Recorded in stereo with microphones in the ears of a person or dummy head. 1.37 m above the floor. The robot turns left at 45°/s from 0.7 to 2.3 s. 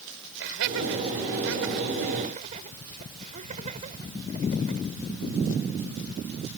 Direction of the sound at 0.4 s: 70° right (ahead or behind).